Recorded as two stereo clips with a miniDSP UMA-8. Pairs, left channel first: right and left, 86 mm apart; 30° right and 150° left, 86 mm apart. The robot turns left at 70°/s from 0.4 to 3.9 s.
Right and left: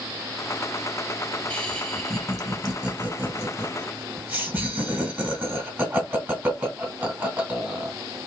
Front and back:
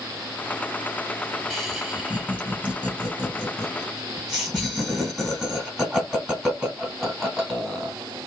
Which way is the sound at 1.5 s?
120° right.